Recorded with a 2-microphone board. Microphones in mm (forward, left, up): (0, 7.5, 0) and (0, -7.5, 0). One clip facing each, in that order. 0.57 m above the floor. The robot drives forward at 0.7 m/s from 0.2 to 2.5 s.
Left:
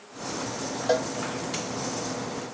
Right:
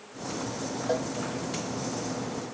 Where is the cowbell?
35° left (ahead or behind).